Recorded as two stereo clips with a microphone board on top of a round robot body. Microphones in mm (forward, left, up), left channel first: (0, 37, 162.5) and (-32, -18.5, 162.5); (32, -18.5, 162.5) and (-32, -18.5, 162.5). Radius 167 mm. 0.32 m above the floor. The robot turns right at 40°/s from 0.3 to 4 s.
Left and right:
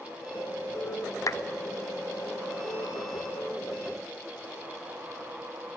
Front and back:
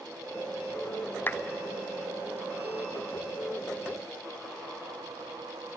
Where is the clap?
50° left, 0.9 m; by 1.4 s 55° left, 0.9 m.